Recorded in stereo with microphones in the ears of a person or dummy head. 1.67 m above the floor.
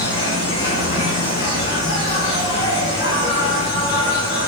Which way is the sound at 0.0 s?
35° left (ahead or behind).